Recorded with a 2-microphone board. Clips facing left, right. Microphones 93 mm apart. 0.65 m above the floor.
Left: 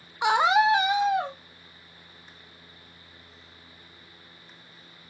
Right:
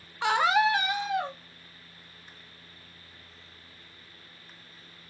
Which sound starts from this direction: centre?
A scream, at 0.2 s.